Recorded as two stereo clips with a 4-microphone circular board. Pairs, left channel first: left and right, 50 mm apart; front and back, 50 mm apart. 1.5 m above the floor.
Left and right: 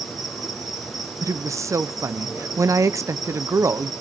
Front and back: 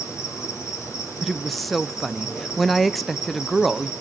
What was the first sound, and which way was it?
An insect, 5° right.